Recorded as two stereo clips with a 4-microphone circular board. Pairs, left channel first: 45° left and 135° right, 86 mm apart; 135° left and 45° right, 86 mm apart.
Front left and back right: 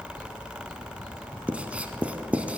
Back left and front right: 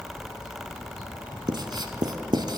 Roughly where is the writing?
Ahead right.